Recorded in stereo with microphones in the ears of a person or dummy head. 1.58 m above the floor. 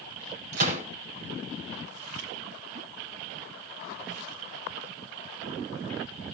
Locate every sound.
0.5 s a gunshot: 60° right (ahead or behind), 9.5 m